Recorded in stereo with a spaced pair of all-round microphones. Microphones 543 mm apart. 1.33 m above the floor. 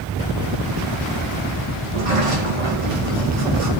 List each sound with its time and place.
1.8 s a sliding door: 65° right (ahead or behind), 1.6 m